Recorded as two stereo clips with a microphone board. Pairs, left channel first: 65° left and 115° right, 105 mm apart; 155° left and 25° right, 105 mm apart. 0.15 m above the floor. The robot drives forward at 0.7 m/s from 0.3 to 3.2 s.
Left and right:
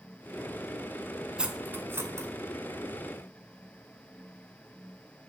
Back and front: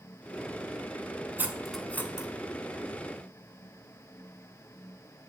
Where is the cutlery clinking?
50° right, 0.6 m; by 2.3 s 160° right, 0.8 m.